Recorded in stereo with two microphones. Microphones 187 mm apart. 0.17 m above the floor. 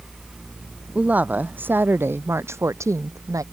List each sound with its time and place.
0.9 s a woman speaking: 10° right (ahead or behind); by 3.4 s 20° right (ahead or behind)